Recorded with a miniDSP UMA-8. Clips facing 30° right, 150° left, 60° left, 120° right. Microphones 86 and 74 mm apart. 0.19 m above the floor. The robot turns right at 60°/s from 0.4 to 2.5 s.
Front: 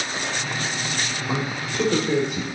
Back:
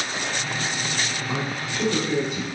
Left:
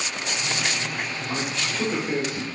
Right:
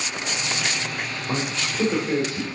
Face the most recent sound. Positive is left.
turn(degrees=5)